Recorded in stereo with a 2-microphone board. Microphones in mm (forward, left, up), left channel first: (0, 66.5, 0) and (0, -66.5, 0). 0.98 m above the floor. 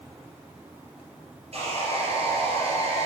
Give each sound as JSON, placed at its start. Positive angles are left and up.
{"t": 1.5, "sound": "sawing", "side_deg": -50, "distance_m": 2.5}